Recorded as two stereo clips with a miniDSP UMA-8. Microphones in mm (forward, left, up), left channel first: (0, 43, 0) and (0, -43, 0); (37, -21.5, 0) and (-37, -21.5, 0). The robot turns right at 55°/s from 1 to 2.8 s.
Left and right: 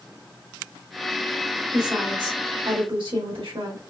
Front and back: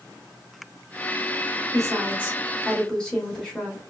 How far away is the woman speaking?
About 2 m.